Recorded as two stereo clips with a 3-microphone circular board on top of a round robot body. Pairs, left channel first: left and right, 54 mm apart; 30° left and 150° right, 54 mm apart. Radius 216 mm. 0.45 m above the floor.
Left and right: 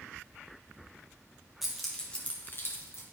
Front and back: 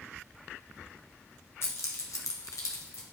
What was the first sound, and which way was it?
Keys jangling, 5° right.